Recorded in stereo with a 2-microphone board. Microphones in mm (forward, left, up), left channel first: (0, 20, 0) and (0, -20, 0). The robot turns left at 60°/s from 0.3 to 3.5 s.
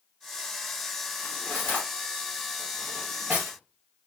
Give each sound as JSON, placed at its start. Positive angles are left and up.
{"t": 1.2, "sound": "cutlery clinking", "side_deg": 70, "distance_m": 1.7}